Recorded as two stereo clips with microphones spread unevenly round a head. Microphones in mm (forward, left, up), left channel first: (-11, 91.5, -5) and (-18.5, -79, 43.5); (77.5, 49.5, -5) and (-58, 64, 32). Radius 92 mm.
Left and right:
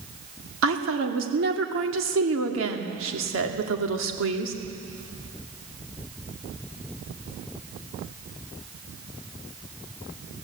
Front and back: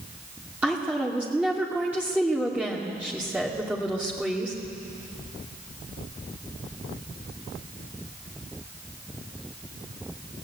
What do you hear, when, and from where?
0.6 s a woman speaking: 100° right, 2.5 m